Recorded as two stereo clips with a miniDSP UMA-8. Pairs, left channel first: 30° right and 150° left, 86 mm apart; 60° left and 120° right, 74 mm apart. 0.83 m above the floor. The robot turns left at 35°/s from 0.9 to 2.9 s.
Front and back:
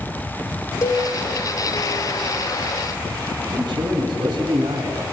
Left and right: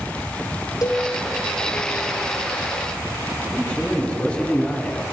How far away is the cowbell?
About 2.5 m.